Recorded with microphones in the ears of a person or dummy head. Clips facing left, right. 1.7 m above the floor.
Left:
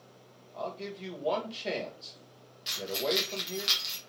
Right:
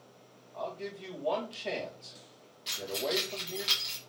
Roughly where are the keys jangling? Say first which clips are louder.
Left 2 dB; centre.